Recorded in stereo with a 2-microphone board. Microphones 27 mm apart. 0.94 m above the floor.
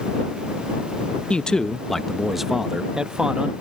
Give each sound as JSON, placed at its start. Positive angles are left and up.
{"t": 1.3, "sound": "a man speaking", "side_deg": 40}